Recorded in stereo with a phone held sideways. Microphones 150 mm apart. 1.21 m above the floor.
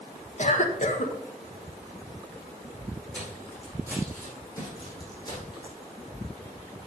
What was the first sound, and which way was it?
A cough, 55° left (ahead or behind).